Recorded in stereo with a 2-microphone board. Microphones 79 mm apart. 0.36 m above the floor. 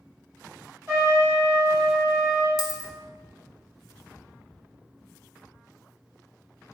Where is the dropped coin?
55° left (ahead or behind), 0.6 m.